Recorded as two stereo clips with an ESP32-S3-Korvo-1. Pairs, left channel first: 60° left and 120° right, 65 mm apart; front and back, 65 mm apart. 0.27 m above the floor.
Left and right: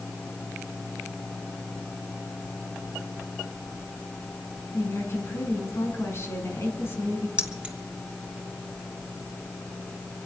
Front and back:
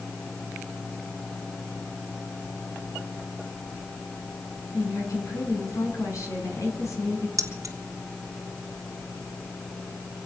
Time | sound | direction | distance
4.7 | a woman speaking | 20° left | 3.5 m
7.4 | keys jangling | 170° left | 1.6 m